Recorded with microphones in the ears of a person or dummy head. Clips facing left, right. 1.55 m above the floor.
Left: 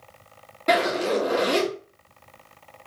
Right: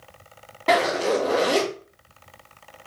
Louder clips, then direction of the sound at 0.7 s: Right 1 dB; centre (ahead or behind).